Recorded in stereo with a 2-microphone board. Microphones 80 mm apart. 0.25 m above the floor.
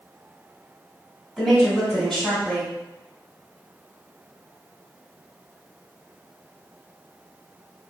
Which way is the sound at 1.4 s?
5° left (ahead or behind).